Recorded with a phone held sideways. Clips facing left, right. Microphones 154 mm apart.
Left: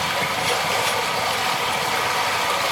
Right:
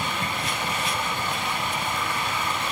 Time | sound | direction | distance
0.0 | running water | 85° left | 2.5 m